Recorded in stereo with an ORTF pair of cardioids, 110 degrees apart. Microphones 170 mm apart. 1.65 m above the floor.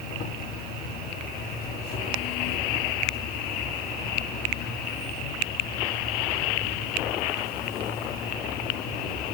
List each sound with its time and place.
0.0 s an insect: 70° left, 2.5 m